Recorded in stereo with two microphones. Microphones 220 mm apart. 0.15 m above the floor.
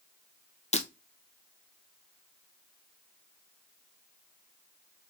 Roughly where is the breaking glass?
Left.